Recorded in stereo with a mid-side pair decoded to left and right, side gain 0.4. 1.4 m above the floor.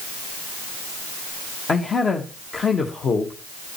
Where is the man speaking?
45° left, 1.4 m.